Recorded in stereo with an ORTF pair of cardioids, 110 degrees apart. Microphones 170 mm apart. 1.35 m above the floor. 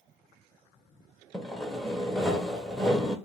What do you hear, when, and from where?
1.3 s sawing: straight ahead, 0.5 m